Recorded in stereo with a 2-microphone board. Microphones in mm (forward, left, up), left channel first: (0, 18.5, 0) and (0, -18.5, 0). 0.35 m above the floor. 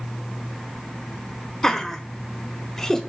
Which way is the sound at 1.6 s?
10° left (ahead or behind).